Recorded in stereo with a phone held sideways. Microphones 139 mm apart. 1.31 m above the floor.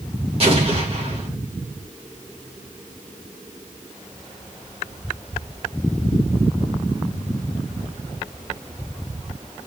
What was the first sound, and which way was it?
An explosion, 45° right (ahead or behind).